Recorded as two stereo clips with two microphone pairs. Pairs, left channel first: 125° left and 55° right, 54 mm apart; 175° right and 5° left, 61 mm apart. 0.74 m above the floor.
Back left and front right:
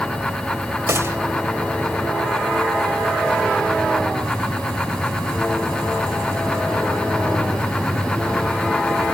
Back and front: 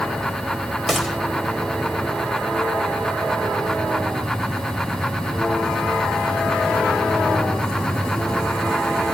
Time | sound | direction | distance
0.9 | a gunshot | 85° right | 1.5 m